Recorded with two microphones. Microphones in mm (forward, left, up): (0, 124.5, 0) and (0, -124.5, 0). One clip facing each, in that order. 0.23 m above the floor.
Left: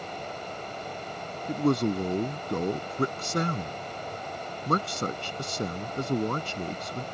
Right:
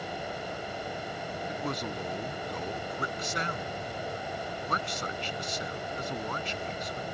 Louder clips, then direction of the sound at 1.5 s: Left 13 dB; 50° left (ahead or behind).